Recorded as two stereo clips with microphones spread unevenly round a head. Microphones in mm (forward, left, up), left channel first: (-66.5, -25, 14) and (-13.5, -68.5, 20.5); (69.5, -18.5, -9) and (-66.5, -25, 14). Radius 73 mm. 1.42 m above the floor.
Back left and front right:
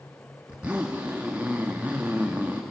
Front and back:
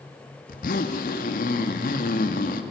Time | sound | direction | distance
0.5 | a zipper | 40° left | 1.6 m